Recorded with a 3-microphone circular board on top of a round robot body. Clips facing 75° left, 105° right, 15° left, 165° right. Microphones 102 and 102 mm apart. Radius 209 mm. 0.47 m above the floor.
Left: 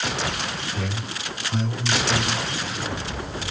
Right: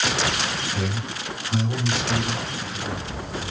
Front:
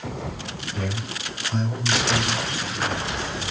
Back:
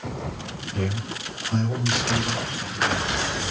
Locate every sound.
0.7 s a man speaking: 150° right, 2.5 m